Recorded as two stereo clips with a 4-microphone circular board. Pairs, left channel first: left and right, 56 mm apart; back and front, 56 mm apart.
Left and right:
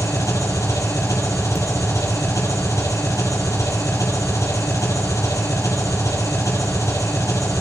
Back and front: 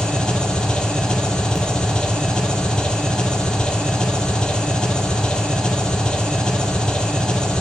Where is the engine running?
105° left, 4.5 m.